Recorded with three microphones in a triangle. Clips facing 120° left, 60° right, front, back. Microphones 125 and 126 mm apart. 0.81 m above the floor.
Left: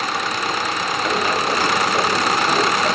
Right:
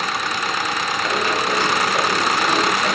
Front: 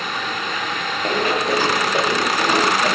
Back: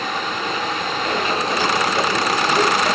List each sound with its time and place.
1.0 s running footsteps: 40° left, 6.5 m; by 3.0 s 35° left, 8 m